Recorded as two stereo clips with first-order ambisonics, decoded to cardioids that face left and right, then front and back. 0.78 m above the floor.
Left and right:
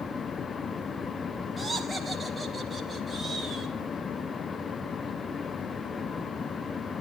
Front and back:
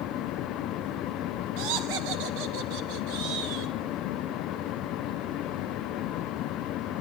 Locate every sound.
1.6 s laughter: 175° right, 1.1 m